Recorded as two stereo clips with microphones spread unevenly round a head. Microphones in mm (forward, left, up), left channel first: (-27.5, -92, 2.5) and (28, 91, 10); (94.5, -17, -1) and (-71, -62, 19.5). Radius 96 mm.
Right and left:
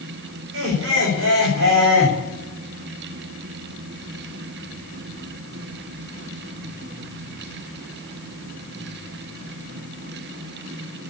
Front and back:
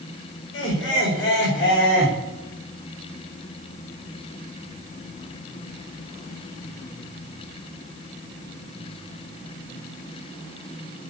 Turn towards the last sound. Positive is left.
turn(degrees=50)